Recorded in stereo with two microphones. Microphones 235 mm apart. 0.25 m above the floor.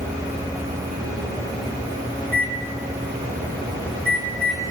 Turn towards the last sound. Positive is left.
turn(degrees=60)  # may be behind; listen again after turning